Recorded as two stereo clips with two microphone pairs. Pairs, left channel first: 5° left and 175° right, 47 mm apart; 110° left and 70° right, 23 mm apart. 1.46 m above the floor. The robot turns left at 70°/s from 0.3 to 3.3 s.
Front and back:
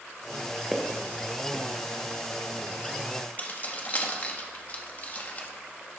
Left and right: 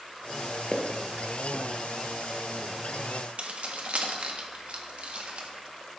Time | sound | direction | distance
0.7 | footsteps | 115° left | 1.6 m
3.4 | keys jangling | 45° right | 1.5 m